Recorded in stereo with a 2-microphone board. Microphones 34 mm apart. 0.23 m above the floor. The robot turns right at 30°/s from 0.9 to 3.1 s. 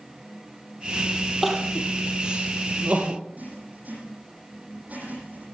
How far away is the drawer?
No drawer in this recording.